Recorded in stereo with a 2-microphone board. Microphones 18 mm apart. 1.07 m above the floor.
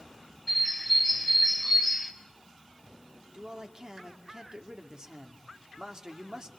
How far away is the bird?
About 3 m.